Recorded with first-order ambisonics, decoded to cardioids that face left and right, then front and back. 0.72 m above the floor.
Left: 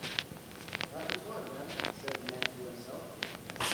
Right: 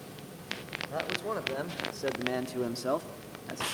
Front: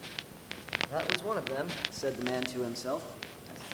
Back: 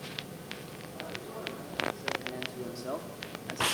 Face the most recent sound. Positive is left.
turn(degrees=-125)